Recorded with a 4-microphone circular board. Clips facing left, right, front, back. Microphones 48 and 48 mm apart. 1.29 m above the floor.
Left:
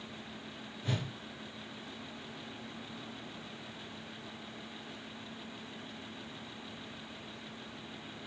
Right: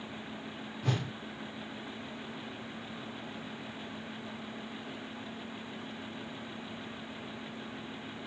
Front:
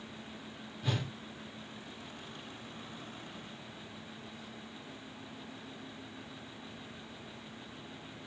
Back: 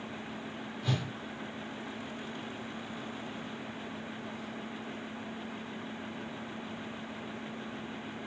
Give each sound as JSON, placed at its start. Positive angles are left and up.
{"t": 0.8, "sound": "a whoosh", "azimuth_deg": -80, "distance_m": 1.1}